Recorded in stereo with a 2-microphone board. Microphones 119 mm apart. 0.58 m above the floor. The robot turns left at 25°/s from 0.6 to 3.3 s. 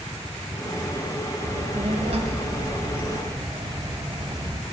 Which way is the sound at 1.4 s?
95° right.